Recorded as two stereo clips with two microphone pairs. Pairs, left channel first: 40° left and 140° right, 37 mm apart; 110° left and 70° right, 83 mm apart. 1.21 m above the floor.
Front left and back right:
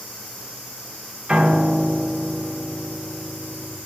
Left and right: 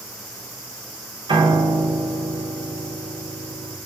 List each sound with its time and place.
1.3 s a piano: 80° right, 0.5 m